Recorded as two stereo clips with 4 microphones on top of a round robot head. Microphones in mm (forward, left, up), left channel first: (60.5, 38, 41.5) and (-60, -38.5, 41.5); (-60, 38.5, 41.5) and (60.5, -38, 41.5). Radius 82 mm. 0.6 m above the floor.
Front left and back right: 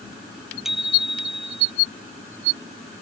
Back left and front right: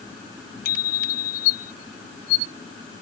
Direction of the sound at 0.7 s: 125° left.